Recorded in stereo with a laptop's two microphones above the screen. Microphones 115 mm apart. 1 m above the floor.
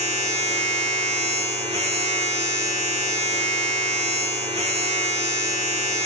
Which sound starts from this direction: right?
A machine running, at 0.0 s.